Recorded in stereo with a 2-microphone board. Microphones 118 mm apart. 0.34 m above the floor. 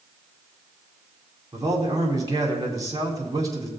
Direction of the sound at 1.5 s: 30° right (ahead or behind).